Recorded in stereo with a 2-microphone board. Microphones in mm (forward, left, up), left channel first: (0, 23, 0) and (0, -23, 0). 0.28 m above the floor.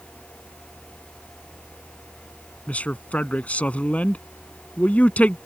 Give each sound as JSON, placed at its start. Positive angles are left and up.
{"t": 2.7, "sound": "a man speaking", "side_deg": 30}